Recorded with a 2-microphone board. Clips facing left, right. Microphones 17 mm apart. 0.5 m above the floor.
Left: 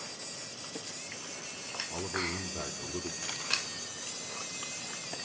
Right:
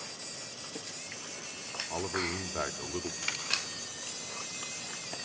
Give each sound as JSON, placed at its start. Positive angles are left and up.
{"t": 1.9, "sound": "a man speaking", "side_deg": -50, "distance_m": 1.1}
{"t": 3.2, "sound": "a dropped coin", "side_deg": -55, "distance_m": 5.0}